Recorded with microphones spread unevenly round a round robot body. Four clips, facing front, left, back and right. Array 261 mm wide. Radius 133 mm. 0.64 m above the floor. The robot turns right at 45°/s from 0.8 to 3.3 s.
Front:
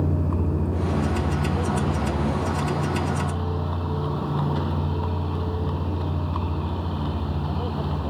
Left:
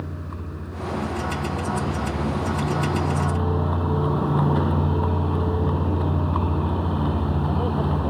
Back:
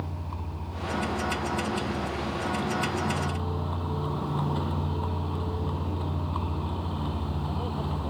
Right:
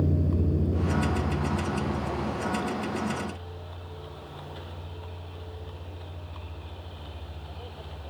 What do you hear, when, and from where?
0.0 s a vehicle: 35° right; by 8.1 s 75° left